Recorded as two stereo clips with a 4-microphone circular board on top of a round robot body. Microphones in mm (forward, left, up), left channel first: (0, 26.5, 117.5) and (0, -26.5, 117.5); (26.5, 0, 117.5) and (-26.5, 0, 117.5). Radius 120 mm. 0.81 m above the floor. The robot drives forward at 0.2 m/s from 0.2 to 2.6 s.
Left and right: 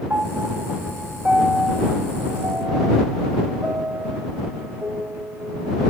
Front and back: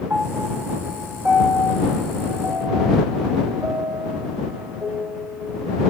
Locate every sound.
0.1 s a piano: 155° right, 1.5 m; by 5.8 s 160° right, 1.9 m